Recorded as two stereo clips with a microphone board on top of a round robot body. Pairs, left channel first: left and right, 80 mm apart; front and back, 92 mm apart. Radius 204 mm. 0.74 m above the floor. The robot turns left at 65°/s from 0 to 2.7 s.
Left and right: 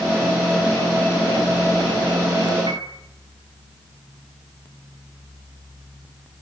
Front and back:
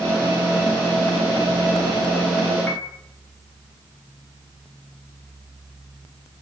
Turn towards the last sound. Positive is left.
turn(degrees=-70)